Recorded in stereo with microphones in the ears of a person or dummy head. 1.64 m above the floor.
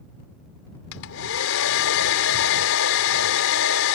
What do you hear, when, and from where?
0.9 s a hair dryer: 75° left (ahead or behind)